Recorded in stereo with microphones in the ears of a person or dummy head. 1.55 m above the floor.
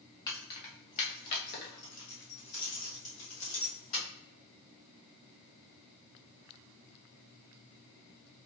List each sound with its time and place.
0.3 s keys jangling: 25° left (ahead or behind), 1.0 m; by 4.0 s 70° left (ahead or behind), 2.5 m